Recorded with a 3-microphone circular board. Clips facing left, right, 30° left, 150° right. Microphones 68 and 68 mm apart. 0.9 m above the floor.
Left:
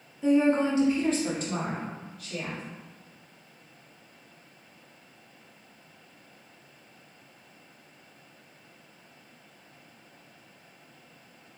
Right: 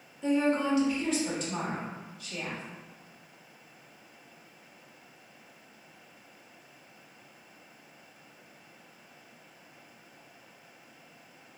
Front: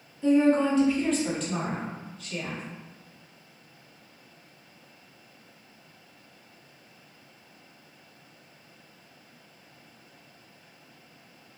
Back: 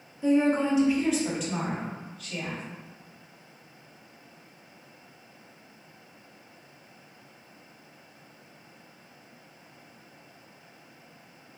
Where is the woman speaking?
165° left, 0.5 m; by 2.6 s 125° left, 1.6 m.